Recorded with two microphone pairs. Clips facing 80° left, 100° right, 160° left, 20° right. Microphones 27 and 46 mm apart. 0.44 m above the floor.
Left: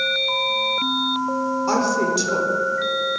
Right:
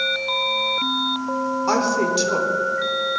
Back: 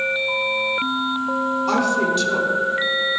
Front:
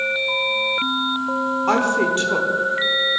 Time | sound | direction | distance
1.7 | a woman speaking | 40° right | 0.9 m